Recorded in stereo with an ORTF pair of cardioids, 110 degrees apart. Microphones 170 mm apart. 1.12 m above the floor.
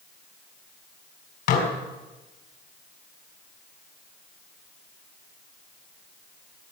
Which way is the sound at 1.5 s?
70° left.